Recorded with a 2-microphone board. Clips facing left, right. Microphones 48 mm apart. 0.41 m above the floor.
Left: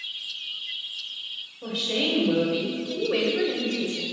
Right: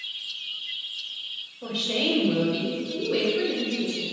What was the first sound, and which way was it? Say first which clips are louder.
A woman speaking: even; 5° right (ahead or behind).